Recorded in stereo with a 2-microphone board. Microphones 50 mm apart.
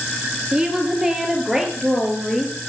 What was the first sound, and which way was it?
A woman speaking, 15° right (ahead or behind).